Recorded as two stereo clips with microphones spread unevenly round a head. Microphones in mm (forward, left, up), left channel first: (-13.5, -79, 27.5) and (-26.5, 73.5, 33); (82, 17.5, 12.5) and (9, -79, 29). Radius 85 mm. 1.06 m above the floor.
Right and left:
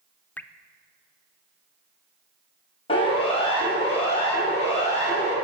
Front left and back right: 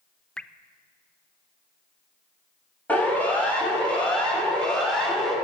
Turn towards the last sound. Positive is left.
turn(degrees=-35)